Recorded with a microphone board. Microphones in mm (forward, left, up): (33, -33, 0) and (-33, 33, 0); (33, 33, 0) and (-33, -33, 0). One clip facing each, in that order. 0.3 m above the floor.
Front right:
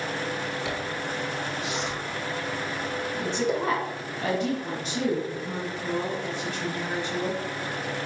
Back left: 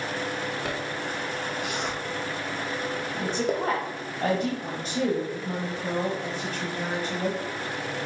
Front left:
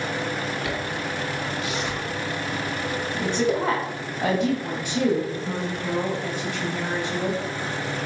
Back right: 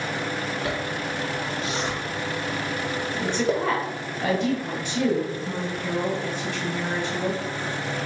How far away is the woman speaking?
About 1.3 m.